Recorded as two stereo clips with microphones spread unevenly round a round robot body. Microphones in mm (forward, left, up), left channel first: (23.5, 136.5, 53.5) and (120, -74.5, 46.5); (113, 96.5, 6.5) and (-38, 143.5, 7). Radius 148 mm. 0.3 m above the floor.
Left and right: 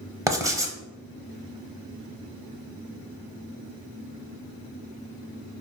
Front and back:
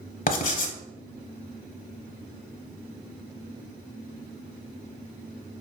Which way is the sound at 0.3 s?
10° left.